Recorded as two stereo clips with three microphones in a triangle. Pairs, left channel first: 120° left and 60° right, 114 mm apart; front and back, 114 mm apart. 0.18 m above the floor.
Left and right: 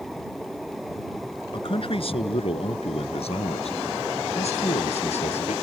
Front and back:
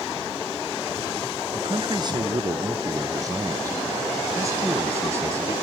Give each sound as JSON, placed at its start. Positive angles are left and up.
{"t": 1.5, "sound": "a man speaking", "azimuth_deg": 145}